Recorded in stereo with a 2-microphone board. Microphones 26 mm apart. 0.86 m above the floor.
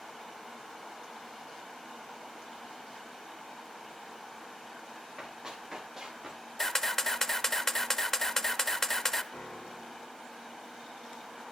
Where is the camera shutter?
20° left (ahead or behind), 0.7 m.